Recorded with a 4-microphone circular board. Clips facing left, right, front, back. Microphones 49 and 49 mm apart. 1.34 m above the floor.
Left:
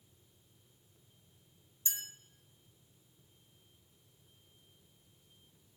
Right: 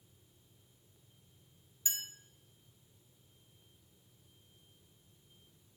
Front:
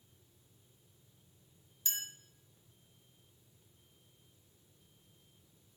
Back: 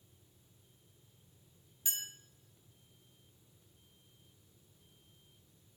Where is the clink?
105° right, 0.7 m.